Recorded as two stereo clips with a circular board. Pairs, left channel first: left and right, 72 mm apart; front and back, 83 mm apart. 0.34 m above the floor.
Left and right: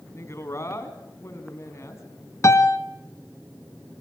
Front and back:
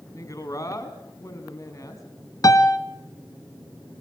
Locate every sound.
0.1 s a woman speaking: 45° left, 3.5 m
2.4 s a piano: 45° left, 1.4 m